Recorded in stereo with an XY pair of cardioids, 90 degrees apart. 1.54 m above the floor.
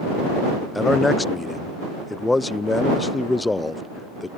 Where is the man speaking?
20° left.